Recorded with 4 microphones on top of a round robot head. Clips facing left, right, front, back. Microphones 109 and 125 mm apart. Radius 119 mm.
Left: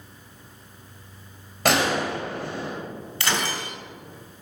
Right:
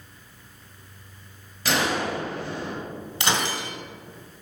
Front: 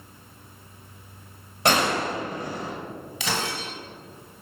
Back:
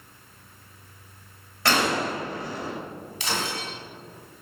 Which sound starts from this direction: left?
A gunshot, at 1.6 s.